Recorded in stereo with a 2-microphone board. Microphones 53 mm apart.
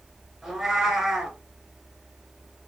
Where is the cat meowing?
Centre (ahead or behind), 2 m.